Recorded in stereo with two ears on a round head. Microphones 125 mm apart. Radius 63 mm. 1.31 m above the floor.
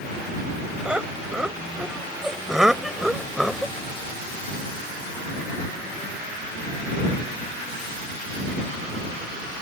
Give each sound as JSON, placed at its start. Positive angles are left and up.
{"t": 0.8, "sound": "laughter", "side_deg": -5}